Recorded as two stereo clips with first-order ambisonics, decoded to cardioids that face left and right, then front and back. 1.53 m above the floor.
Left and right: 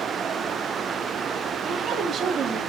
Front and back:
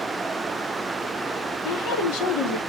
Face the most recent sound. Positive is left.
turn(degrees=-30)